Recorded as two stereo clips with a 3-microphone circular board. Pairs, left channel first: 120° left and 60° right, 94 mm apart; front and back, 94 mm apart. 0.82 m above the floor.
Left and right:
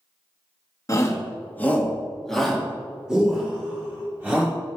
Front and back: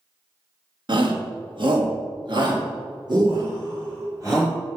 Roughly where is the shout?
Behind.